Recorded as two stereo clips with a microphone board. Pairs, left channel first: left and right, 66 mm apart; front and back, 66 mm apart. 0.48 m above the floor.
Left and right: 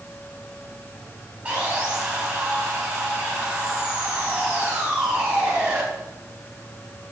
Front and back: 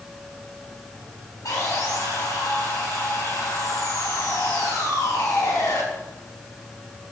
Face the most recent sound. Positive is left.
turn(degrees=-20)